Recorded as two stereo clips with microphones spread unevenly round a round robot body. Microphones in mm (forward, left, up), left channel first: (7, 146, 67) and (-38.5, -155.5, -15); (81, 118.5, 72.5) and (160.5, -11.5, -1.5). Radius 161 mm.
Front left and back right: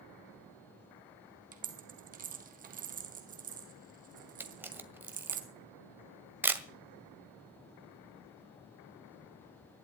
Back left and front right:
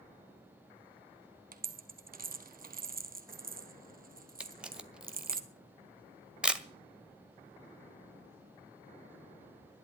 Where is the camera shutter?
50° right, 1.4 m.